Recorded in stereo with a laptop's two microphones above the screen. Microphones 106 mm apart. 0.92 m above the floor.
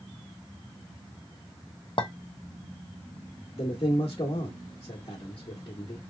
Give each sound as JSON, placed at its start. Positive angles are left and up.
{"t": 2.0, "sound": "a clink", "side_deg": 55, "distance_m": 0.5}
{"t": 3.6, "sound": "a man speaking", "side_deg": 55, "distance_m": 1.0}